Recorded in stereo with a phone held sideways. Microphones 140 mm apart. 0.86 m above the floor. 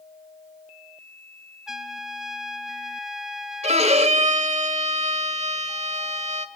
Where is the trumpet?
5° right (ahead or behind), 1.4 m.